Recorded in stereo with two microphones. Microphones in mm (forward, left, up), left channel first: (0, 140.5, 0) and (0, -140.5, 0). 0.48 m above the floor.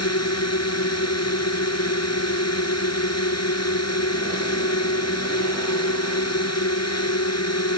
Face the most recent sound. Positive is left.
turn(degrees=60)  # may be behind; listen again after turning